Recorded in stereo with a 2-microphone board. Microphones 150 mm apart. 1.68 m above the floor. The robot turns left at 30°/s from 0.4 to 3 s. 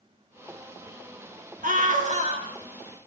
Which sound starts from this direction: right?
A scream, at 1.6 s.